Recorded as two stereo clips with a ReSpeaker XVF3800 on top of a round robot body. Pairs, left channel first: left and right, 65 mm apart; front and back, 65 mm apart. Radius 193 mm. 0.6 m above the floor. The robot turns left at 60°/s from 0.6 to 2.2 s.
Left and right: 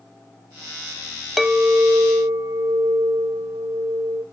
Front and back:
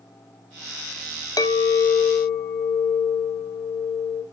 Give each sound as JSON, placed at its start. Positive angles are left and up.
{"t": 1.4, "sound": "a clink", "azimuth_deg": 5, "distance_m": 0.9}